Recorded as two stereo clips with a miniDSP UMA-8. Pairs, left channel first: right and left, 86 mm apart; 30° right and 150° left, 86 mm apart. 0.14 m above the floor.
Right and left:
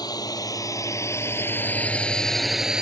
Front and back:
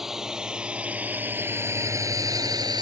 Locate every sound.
0.0 s a drone: 125° right; by 2.8 s 170° left